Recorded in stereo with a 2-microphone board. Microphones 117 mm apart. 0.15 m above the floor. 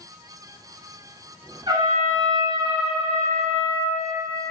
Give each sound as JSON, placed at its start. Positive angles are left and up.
{"t": 1.7, "sound": "a trumpet", "side_deg": -40, "distance_m": 1.6}